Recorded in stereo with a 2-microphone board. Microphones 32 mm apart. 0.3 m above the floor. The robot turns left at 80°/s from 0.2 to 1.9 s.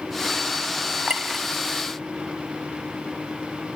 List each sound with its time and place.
1.1 s a clink: 30° right (ahead or behind), 0.8 m; by 1.4 s 10° right (ahead or behind), 0.8 m